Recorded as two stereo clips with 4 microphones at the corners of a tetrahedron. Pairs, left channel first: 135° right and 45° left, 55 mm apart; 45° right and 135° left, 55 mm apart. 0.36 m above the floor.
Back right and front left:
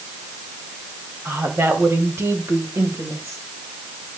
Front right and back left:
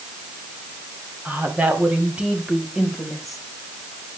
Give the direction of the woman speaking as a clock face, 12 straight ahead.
9 o'clock.